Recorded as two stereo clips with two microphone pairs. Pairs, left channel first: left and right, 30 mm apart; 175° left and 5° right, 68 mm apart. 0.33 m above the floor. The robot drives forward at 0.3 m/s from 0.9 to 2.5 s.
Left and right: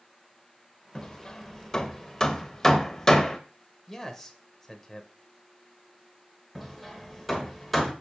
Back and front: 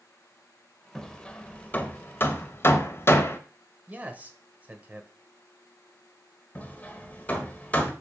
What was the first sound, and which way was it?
Hammering, 105° left.